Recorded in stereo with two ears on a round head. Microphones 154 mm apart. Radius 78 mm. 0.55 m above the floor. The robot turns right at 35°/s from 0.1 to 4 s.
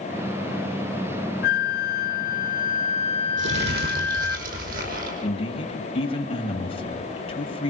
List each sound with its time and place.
1.4 s a flute: 75° left, 0.8 m; by 4.4 s 165° left, 0.8 m
3.4 s crumpling: 75° right (ahead or behind), 5.5 m; by 5.1 s 50° right (ahead or behind), 5.5 m
5.2 s a man speaking: 35° left (ahead or behind), 3 m